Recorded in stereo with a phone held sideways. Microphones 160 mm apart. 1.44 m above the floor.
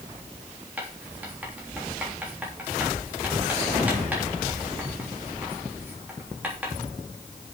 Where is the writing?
10° right (ahead or behind), 3 m.